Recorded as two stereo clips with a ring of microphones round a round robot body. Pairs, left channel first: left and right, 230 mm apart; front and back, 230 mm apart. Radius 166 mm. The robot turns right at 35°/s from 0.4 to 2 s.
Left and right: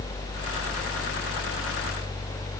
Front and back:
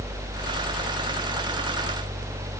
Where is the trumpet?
No trumpet in this recording.